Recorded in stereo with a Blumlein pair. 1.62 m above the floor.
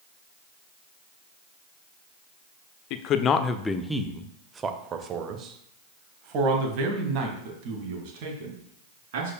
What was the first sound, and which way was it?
A man speaking, 40° left.